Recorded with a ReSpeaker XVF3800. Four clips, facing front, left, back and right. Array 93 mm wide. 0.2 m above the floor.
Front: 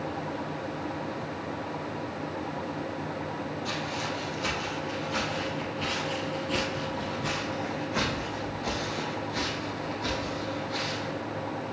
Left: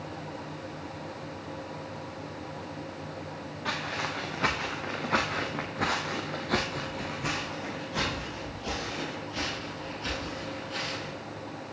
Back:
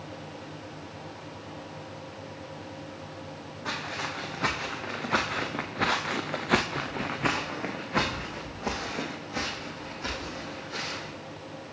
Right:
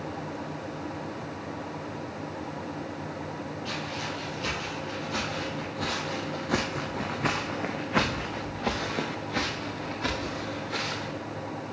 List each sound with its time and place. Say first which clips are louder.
3.6 s footsteps: left 5 dB, back 3 dB; 120° left, 2.5 m; by 11.2 s 100° right, 3.5 m